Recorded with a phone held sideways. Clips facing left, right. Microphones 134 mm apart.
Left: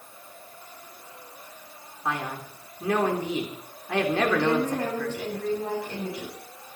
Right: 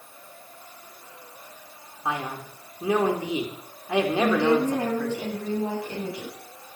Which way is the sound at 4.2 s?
25° right (ahead or behind).